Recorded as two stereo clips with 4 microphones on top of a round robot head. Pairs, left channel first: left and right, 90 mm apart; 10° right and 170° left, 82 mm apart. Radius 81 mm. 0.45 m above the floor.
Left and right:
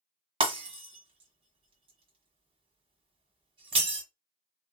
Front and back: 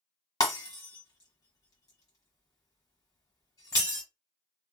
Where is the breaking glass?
60° right, 1.5 m.